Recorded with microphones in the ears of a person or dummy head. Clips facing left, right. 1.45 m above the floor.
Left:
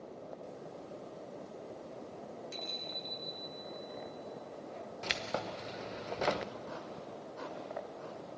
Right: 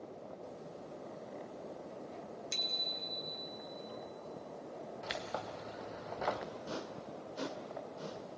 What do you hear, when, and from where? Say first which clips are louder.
2.5 s a bicycle bell: left 1 dB; 75° right (ahead or behind), 2.5 m; by 3.5 s 80° right, 2.5 m
5.0 s keys jangling: left 4 dB; 45° left (ahead or behind), 0.6 m
6.7 s a whoosh: right 1 dB; 45° right (ahead or behind), 2 m